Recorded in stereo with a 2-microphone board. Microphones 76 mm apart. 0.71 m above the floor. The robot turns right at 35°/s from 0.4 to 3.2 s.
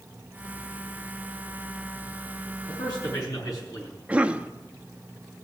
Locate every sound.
2.7 s a man speaking: 65° left (ahead or behind), 6.5 m; by 3.9 s 50° left (ahead or behind), 6.5 m
4.1 s a cough: 15° right (ahead or behind), 0.7 m